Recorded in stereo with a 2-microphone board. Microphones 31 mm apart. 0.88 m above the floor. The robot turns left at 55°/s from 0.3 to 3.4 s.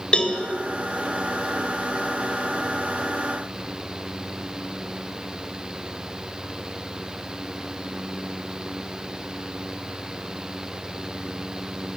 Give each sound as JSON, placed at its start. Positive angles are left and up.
{"t": 0.1, "sound": "a cowbell", "side_deg": 35, "distance_m": 2.0}